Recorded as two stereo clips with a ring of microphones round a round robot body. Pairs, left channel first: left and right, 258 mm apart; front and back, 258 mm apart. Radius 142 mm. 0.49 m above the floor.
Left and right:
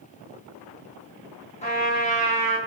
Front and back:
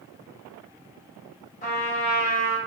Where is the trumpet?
40° left, 0.7 m.